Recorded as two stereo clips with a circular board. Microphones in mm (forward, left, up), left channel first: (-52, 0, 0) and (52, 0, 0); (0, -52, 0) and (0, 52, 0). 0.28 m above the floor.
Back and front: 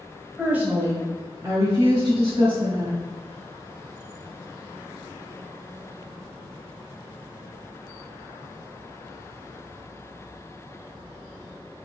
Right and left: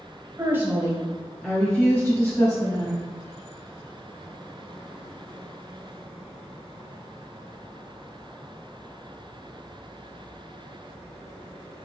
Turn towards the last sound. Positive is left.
turn(degrees=-35)